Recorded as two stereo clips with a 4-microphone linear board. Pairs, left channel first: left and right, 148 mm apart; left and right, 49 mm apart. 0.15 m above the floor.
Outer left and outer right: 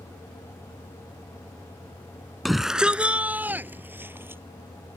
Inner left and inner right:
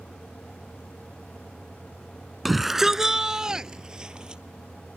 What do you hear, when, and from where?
2.5 s a shout: centre (ahead or behind); by 4.4 s 15° right (ahead or behind)